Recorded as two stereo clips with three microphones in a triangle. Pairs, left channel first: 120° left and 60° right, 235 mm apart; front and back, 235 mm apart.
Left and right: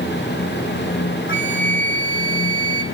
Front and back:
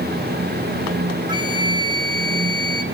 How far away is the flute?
About 0.9 m.